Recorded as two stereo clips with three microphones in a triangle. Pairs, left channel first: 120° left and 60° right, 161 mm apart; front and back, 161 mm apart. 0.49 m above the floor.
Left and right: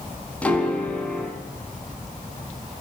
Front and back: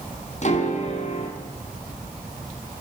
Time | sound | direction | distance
0.4 | a piano | 40° left | 5 m